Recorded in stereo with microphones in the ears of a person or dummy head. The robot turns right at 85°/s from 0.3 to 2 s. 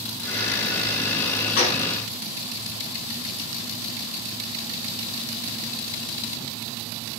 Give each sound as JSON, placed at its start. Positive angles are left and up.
{"t": 1.6, "sound": "a gunshot", "side_deg": 45, "distance_m": 1.7}